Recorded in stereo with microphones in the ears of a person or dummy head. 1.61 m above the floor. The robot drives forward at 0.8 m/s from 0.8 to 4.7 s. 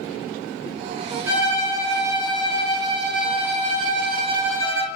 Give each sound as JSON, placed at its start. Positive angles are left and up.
{"t": 1.3, "sound": "a violin", "side_deg": -20, "distance_m": 3.0}